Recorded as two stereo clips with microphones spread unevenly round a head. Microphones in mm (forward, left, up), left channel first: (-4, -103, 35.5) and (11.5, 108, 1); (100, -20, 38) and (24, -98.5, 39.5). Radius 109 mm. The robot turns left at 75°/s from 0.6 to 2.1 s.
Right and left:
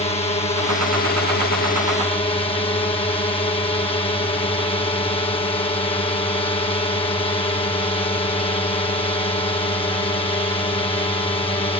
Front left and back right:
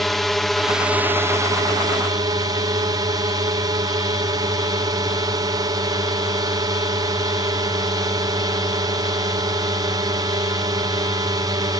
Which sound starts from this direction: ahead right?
A drone, at 0.0 s.